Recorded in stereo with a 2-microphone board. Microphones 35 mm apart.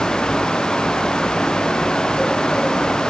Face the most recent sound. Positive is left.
No sound to turn to.